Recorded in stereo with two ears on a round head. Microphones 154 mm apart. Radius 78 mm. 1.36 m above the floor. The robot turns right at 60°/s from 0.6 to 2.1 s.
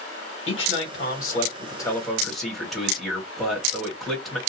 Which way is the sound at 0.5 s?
90° left.